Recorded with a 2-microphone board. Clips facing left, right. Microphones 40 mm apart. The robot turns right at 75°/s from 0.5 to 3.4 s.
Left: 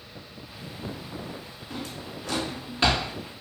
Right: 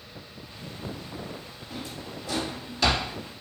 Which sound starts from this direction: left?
A drawer, at 1.7 s.